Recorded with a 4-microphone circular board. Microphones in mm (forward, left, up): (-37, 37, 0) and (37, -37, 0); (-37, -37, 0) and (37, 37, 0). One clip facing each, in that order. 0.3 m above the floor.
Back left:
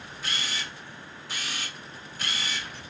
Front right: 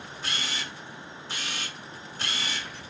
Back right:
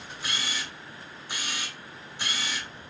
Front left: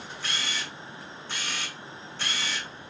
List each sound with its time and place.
0.2 s a camera shutter: 70° right, 0.9 m